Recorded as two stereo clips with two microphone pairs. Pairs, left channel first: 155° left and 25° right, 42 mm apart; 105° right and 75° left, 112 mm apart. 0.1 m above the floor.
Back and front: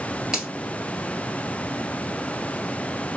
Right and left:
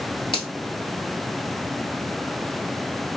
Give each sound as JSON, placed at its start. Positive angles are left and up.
{"t": 0.3, "sound": "a finger snap", "azimuth_deg": -100, "distance_m": 1.6}